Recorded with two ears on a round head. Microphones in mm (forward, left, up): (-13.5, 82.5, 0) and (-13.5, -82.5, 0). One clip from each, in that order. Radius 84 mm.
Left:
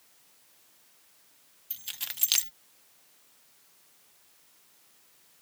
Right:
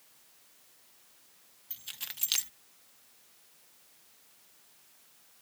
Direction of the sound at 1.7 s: 20° left (ahead or behind).